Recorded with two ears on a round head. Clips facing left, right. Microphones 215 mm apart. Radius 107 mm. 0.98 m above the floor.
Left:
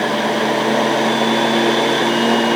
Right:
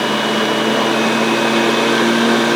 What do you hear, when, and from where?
Only background noise.